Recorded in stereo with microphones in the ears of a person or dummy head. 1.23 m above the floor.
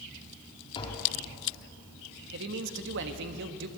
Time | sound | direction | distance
0.8 | tapping | 30° left (ahead or behind) | 4 m
2.3 | a man speaking | 60° right (ahead or behind) | 1.5 m